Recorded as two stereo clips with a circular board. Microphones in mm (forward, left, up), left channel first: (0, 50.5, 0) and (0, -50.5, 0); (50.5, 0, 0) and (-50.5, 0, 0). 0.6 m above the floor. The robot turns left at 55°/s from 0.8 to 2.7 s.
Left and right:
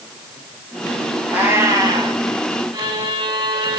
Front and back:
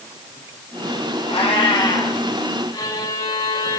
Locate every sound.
1.3 s a cat meowing: 10° right, 3 m; by 2.2 s 60° right, 3 m
2.7 s a violin: 55° right, 5.5 m